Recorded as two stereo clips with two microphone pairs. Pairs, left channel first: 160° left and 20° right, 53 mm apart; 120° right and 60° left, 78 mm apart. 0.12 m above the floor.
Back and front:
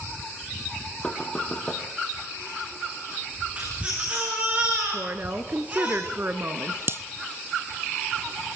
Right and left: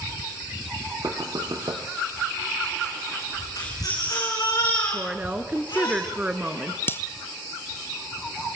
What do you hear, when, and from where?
1.0 s knocking: 90° left, 2.5 m
3.6 s a baby crying: 80° right, 8 m
4.9 s a woman speaking: 5° right, 1.5 m
6.9 s breaking glass: 55° right, 0.7 m